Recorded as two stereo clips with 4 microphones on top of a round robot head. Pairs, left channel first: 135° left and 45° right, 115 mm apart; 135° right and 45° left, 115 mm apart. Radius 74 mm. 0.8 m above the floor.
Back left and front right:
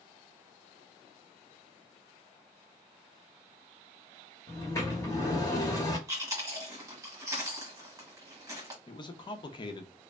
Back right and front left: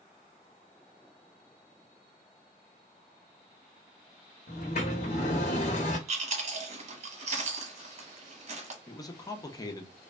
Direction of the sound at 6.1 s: 20° left.